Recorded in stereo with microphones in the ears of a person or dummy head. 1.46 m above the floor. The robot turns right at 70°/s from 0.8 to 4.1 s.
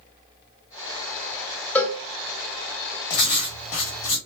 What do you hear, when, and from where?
1.8 s a cowbell: 10° left (ahead or behind), 0.7 m; by 2.0 s 20° left (ahead or behind), 0.7 m
3.1 s writing: 50° left, 1.5 m; by 4.2 s 120° left, 1.5 m